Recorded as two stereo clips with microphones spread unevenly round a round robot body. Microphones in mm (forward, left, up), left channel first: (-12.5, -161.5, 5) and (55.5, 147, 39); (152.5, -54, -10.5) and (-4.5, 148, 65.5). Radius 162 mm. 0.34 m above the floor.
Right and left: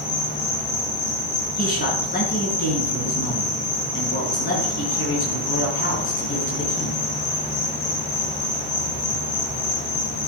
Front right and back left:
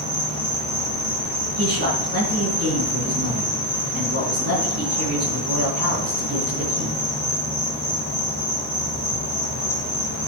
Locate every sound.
0.0 s an insect: 160° right, 5.5 m
1.6 s a man speaking: 165° right, 4.5 m